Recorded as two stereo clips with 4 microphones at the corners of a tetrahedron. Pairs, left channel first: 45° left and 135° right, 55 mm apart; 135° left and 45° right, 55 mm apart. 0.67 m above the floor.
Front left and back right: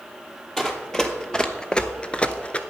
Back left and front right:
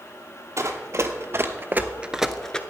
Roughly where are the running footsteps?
Ahead right.